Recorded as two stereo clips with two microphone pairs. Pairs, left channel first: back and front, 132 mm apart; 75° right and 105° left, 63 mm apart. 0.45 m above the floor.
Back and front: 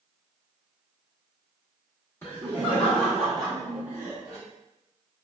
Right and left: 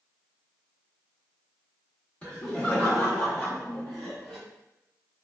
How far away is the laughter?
About 1.4 m.